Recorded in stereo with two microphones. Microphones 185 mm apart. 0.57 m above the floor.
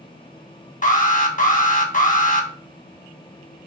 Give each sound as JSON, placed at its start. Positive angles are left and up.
{"t": 0.8, "sound": "an alarm", "side_deg": 45, "distance_m": 0.9}